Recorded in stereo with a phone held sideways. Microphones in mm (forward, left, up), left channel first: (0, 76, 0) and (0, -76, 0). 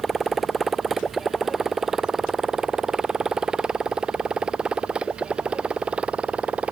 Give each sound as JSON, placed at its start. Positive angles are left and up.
{"t": 0.0, "sound": "a motorcycle", "side_deg": 0}